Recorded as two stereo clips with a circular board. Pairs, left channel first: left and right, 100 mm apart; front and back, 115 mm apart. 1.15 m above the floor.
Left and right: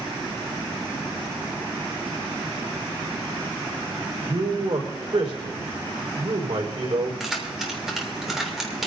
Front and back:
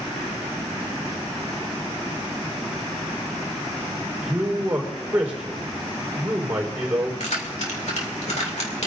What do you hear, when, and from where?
4.2 s a man speaking: 100° right, 4.5 m
7.2 s keys jangling: 5° right, 2.5 m